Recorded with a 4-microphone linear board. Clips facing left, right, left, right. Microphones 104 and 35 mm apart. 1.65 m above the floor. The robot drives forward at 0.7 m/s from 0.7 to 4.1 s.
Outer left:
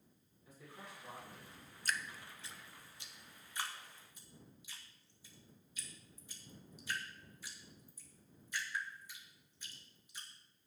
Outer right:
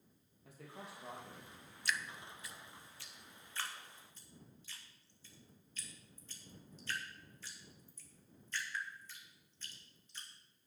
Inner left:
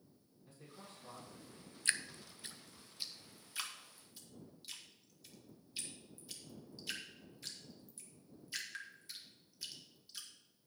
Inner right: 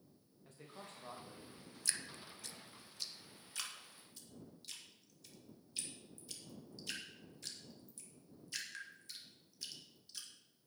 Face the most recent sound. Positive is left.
turn(degrees=10)  # may be behind; listen again after turning